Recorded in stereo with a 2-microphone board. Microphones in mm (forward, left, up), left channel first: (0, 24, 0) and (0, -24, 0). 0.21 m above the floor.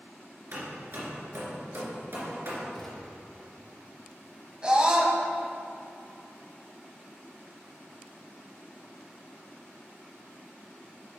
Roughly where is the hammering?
Right.